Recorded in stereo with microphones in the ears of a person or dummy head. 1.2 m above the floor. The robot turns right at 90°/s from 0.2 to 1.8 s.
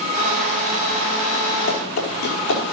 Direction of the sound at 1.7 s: 75° left (ahead or behind).